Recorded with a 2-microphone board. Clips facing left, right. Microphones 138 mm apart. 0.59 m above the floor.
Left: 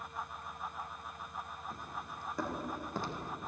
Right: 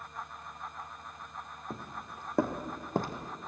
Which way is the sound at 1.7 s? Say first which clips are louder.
Right 5 dB; 65° right (ahead or behind).